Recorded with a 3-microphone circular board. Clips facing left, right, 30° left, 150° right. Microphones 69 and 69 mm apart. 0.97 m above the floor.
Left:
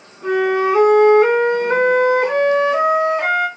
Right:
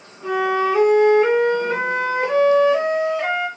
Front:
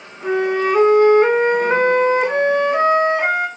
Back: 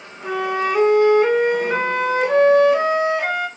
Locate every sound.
0.2 s a flute: 70° left, 1.4 m